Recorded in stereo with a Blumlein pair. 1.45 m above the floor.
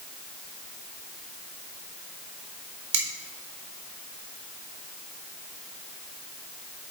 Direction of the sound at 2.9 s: 60° right.